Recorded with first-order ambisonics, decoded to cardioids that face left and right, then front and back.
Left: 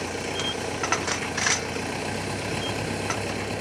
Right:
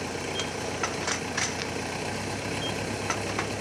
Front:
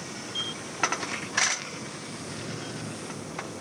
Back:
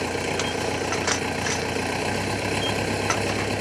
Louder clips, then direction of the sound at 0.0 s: Left 3 dB, back 8 dB; 175° left.